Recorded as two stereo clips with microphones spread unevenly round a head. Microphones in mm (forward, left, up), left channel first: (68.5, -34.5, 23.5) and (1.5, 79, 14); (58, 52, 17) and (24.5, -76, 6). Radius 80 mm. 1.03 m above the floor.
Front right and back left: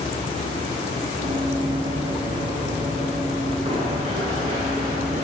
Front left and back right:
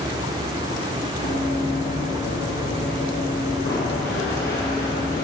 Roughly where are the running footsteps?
Left.